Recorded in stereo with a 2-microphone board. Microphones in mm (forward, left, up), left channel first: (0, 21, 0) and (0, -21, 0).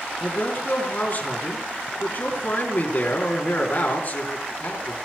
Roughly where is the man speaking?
Left.